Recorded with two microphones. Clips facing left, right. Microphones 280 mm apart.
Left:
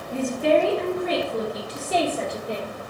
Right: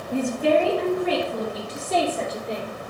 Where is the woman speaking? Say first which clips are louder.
Even; 10° right (ahead or behind), 1.5 m; by 2.7 s 10° left (ahead or behind), 3 m.